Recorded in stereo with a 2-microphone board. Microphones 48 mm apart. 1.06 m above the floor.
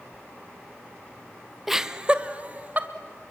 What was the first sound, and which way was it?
Laughter, 5° right (ahead or behind).